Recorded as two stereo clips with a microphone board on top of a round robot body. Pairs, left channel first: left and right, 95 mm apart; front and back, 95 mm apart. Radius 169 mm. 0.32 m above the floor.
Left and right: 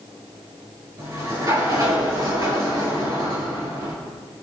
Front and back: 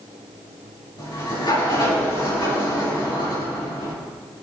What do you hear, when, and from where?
1.0 s a sliding door: 40° right, 5 m